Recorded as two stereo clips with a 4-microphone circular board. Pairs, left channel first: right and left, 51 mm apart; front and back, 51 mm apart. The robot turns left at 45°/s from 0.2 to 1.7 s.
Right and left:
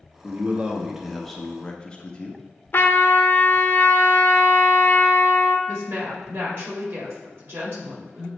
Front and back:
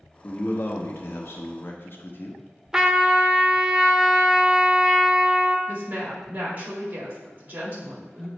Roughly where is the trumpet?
Right.